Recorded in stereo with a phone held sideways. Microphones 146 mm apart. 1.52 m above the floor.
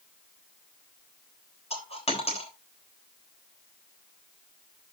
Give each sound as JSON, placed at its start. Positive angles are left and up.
{"t": 1.7, "sound": "a dropped coin", "side_deg": 50, "distance_m": 3.5}